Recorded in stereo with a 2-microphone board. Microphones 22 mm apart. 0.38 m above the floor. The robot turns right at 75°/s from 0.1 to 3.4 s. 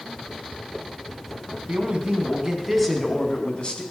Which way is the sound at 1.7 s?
80° right.